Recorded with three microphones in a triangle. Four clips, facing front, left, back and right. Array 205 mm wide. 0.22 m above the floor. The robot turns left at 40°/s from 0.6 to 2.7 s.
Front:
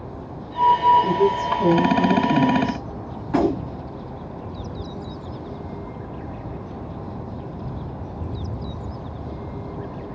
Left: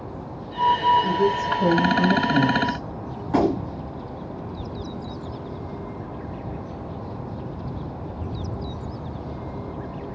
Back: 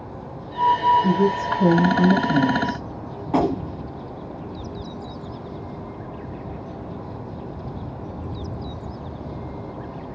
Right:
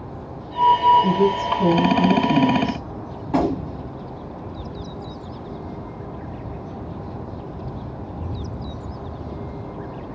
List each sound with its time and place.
1.0 s a woman speaking: 50° right, 1.4 m; by 2.9 s 120° right, 1.4 m
3.3 s a gunshot: 165° right, 0.8 m